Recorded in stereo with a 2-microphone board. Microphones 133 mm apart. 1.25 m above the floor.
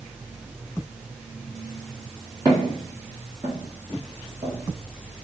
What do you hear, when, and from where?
2.5 s footsteps: 25° right (ahead or behind), 1.6 m